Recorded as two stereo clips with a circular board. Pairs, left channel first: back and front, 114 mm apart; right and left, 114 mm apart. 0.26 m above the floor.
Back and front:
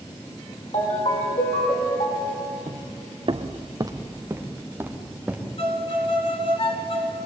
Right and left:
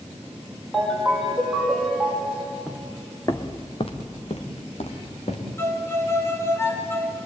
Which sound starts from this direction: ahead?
Footsteps, at 2.7 s.